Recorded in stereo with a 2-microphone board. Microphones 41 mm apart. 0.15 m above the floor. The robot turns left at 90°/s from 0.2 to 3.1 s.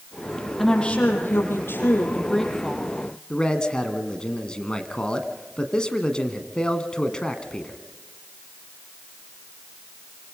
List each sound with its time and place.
0.6 s a woman speaking: straight behind, 5 m; by 2.9 s 30° right, 5 m
3.3 s a man speaking: 20° left (ahead or behind), 1.6 m